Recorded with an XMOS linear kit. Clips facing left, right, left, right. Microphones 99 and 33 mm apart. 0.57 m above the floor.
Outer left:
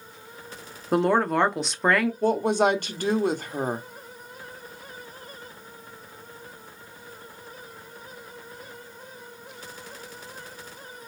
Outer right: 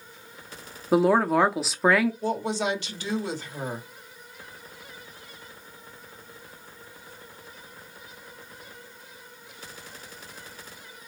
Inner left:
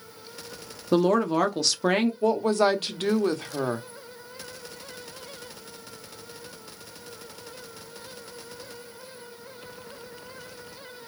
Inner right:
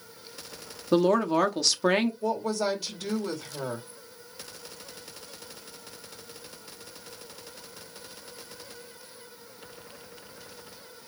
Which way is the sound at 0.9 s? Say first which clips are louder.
Outer right 1 dB, inner left 1 dB; 5° right (ahead or behind).